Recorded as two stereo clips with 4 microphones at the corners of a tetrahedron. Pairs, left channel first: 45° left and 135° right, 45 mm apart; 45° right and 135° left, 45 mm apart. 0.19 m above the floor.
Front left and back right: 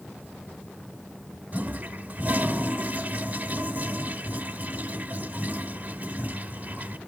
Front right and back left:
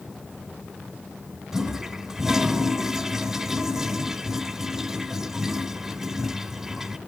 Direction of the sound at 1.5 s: 150° right.